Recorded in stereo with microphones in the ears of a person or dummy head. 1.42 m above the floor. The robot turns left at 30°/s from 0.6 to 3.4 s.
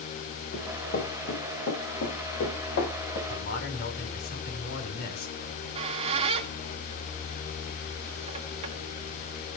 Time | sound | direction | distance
0.5 | running footsteps | 55° left (ahead or behind) | 6.5 m
3.3 | a man speaking | 60° left (ahead or behind) | 6 m
5.4 | a squeak | 35° right (ahead or behind) | 1.9 m